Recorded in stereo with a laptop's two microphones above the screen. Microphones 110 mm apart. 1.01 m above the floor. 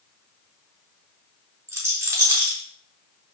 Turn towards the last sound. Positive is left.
turn(degrees=-30)  # may be behind; listen again after turning